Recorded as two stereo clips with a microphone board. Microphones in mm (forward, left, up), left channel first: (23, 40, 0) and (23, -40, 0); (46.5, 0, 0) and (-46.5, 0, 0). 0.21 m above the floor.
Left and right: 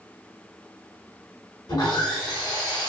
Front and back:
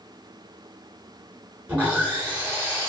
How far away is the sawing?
About 1.4 m.